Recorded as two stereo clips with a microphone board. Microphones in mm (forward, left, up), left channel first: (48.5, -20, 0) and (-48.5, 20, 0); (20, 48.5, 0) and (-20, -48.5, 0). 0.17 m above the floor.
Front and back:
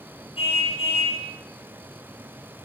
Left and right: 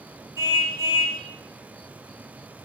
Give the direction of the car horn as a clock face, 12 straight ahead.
2 o'clock.